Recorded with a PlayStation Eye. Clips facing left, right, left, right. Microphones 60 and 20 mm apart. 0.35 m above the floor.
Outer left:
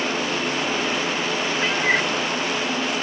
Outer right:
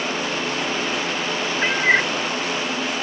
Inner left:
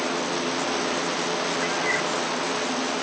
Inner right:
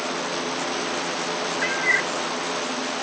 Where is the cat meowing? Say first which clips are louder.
Outer right 4 dB, inner right 6 dB; 25° right (ahead or behind).